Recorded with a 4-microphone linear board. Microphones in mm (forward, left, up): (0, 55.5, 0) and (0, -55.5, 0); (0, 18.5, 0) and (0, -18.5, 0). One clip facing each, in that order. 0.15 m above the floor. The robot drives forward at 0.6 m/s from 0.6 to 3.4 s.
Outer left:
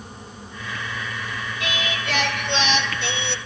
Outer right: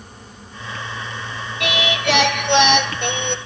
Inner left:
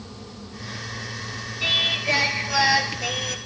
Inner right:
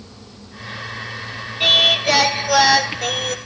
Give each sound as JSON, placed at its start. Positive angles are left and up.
{"t": 1.6, "sound": "singing", "side_deg": -75, "distance_m": 1.0}